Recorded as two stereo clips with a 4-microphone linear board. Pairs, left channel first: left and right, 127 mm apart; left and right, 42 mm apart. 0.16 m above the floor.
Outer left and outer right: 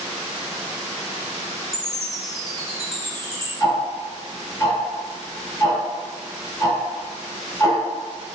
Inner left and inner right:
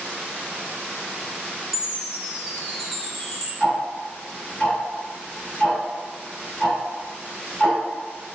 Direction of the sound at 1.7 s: 5° right (ahead or behind).